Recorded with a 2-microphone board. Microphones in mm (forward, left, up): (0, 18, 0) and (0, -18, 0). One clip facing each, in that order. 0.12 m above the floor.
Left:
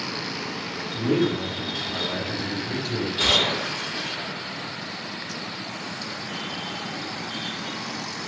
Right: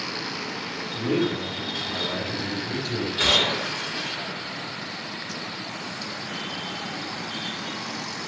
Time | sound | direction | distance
0.9 | a man speaking | 5° right (ahead or behind) | 1.4 m
3.2 | a gunshot | 60° right (ahead or behind) | 1.1 m